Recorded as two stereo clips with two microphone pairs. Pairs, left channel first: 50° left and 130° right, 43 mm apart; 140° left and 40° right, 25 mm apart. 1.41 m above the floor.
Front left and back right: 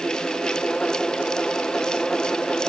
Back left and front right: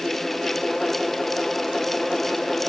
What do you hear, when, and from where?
Only background noise.